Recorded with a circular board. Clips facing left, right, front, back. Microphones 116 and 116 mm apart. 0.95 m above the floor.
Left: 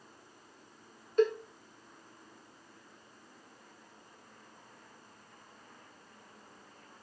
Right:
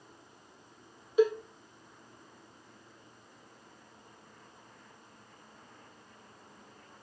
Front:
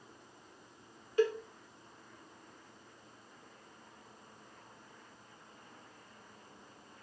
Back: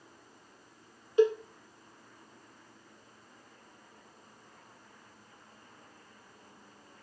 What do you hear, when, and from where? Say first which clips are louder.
1.2 s a cowbell: right 2 dB, back 6 dB; 165° right, 0.5 m